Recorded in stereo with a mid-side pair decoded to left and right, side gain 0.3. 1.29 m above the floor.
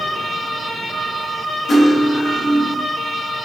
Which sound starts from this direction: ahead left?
Cutlery clinking, at 1.7 s.